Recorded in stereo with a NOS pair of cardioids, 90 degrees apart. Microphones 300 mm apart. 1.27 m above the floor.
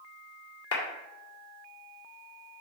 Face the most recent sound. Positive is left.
turn(degrees=55)